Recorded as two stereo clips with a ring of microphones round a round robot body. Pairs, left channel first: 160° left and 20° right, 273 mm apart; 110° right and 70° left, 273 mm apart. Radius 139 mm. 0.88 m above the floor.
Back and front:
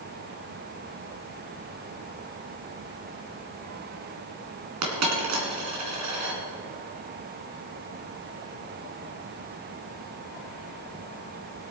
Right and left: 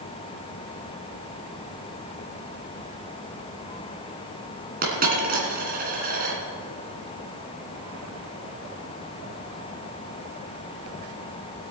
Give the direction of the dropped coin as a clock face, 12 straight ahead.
12 o'clock.